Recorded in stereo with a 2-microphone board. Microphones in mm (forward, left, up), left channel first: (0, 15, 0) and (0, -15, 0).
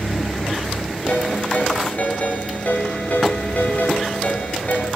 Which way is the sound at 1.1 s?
55° left (ahead or behind).